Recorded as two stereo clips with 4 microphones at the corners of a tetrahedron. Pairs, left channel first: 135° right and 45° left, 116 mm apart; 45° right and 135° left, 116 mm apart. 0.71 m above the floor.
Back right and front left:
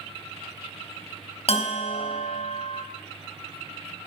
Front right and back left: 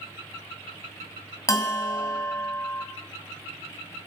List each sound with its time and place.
1.5 s a bell: 105° right, 3 m